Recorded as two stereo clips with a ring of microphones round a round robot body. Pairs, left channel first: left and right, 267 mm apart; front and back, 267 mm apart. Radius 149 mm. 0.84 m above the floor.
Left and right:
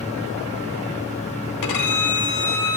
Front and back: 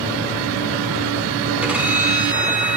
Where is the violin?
95° left, 1.0 m.